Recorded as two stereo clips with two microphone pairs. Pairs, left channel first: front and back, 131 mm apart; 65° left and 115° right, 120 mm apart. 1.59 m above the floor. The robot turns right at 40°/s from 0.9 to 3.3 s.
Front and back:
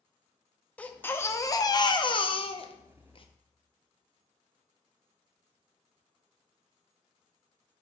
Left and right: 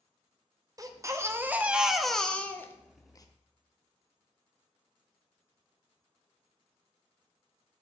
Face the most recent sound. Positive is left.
turn(degrees=25)